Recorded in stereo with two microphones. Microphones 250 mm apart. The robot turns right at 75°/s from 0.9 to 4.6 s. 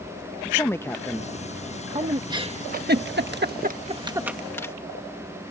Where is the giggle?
15° right (ahead or behind); by 4.7 s 10° left (ahead or behind).